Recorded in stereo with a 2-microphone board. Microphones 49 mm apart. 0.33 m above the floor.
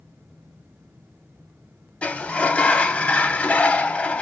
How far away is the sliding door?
About 0.5 m.